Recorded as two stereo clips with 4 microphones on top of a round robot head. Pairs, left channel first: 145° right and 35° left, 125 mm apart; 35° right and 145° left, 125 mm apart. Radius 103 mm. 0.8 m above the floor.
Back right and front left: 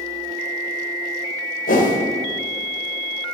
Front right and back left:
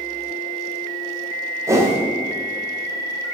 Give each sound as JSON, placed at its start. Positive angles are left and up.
{"t": 1.7, "sound": "a whoosh", "azimuth_deg": -145, "distance_m": 2.0}